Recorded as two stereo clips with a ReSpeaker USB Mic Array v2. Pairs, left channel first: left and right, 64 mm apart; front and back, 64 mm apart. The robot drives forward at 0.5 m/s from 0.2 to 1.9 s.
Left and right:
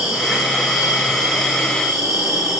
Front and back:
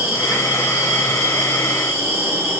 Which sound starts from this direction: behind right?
An insect, at 0.0 s.